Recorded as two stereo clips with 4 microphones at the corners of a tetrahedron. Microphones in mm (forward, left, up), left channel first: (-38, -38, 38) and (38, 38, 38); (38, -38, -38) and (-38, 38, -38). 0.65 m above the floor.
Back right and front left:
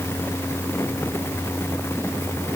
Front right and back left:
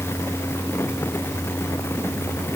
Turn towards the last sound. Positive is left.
No sound to turn to.